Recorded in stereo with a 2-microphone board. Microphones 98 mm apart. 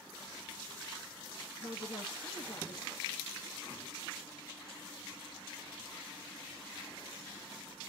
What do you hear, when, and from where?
1.6 s a woman speaking: 60° left (ahead or behind), 0.9 m